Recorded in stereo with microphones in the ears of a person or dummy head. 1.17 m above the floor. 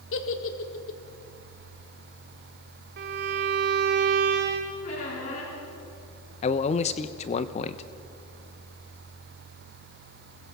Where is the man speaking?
35° left (ahead or behind), 0.9 m.